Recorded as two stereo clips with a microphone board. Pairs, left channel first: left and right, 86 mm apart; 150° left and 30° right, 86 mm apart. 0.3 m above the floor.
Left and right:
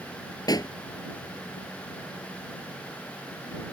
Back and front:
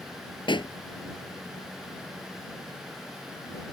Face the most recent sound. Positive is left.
turn(degrees=130)